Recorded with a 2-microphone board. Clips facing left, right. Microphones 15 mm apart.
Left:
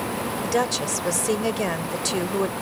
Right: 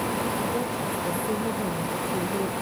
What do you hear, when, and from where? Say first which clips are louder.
0.4 s a woman speaking: left 4 dB; 75° left (ahead or behind)